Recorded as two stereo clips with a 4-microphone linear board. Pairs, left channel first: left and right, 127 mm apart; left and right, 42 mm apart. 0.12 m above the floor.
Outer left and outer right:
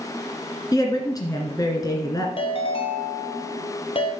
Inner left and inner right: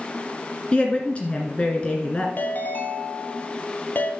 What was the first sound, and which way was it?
A woman speaking, 30° left (ahead or behind).